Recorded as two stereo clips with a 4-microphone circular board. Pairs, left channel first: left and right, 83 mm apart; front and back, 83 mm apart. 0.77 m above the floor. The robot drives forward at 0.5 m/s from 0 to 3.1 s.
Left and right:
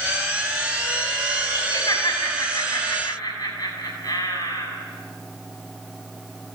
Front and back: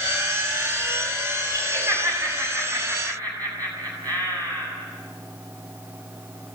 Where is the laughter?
130° left, 7 m; by 4.7 s 135° left, 7.5 m.